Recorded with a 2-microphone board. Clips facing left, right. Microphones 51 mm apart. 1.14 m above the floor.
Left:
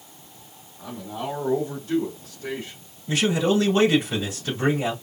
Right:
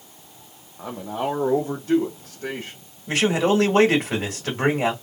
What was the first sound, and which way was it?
A man speaking, 50° right (ahead or behind).